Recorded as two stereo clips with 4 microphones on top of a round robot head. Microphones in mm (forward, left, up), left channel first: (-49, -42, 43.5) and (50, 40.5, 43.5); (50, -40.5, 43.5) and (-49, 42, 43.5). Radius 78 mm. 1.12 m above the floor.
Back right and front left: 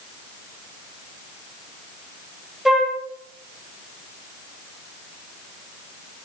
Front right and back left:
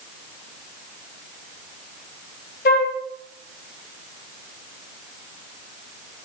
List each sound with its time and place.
2.6 s a flute: 50° right, 1.5 m